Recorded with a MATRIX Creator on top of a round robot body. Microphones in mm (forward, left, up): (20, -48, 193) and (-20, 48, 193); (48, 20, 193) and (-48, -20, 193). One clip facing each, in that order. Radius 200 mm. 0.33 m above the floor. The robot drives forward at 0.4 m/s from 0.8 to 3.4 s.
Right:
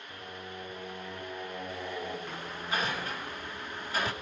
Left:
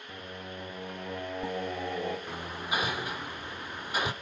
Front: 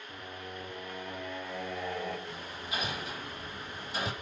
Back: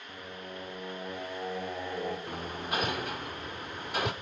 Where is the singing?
140° left, 8.5 m; by 2.2 s 145° left, 9 m.